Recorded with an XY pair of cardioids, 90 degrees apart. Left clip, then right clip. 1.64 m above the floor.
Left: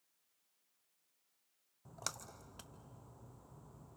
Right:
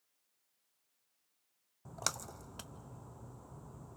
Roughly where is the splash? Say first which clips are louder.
Right 6 dB; ahead right.